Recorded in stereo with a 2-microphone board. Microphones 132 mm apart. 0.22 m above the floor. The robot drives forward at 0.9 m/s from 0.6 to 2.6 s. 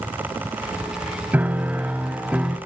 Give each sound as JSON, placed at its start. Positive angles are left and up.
{"t": 1.3, "sound": "a piano", "side_deg": -10, "distance_m": 0.9}